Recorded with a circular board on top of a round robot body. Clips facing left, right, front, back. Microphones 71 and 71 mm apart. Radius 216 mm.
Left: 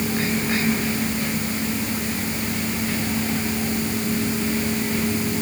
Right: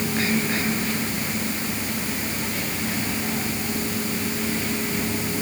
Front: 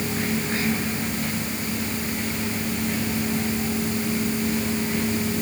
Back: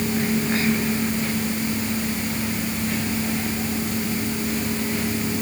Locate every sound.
Only background noise.